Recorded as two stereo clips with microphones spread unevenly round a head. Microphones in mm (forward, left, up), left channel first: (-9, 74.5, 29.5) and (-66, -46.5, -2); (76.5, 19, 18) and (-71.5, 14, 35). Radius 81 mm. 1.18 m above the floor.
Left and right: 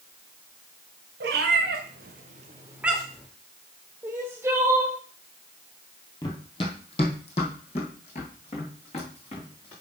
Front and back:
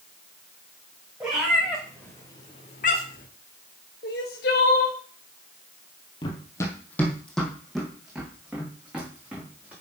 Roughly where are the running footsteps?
Ahead left.